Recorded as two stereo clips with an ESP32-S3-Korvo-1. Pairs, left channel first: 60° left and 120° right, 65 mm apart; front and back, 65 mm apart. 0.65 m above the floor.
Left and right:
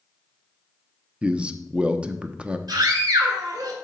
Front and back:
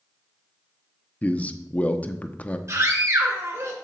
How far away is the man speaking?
About 0.7 m.